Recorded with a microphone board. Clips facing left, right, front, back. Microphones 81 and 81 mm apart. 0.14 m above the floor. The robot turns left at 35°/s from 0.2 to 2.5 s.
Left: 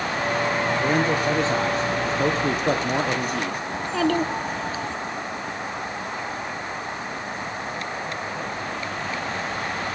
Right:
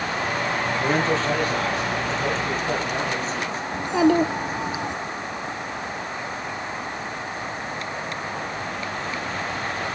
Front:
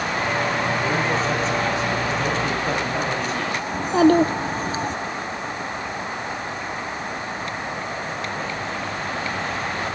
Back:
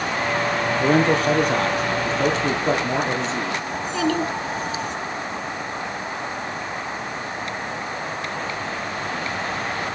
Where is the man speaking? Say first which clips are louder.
Right 1 dB, back 4 dB; straight behind, 3.5 m; by 3.6 s 120° left, 3.5 m.